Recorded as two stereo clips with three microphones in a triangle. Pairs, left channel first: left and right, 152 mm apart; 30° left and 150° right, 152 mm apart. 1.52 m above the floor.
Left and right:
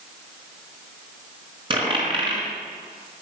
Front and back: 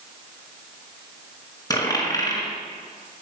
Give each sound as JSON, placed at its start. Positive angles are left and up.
{"t": 1.7, "sound": "a dropped coin", "azimuth_deg": -35, "distance_m": 4.5}